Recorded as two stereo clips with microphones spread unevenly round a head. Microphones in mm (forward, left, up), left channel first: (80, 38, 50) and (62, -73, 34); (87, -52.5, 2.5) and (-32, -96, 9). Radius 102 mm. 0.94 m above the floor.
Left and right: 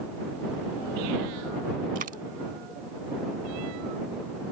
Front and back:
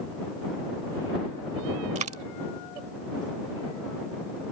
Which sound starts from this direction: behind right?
A dropped coin, at 1.9 s.